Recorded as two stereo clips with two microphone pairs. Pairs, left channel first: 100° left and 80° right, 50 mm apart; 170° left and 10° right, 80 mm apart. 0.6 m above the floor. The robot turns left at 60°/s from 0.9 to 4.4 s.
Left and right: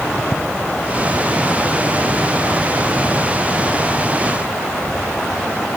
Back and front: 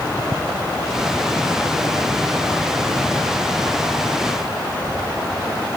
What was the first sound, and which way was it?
Only background noise.